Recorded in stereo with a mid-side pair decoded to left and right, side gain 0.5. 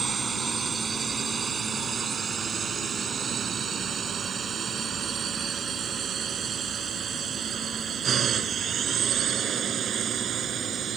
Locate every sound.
0.0 s a drone: 30° right; by 11.0 s 50° right